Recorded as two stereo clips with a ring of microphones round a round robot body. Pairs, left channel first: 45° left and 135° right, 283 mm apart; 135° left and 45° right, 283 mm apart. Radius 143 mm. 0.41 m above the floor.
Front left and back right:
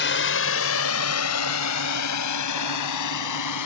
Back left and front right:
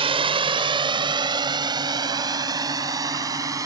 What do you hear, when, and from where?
0.0 s a drone: 20° left; by 3.7 s 35° left